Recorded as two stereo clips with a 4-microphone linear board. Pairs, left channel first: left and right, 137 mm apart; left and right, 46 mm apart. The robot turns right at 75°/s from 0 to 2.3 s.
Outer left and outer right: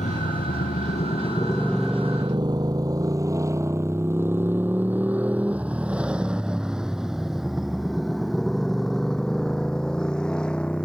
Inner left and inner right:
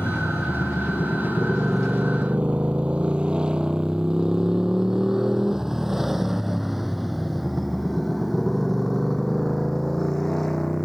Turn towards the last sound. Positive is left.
turn(degrees=5)  # may be behind; listen again after turning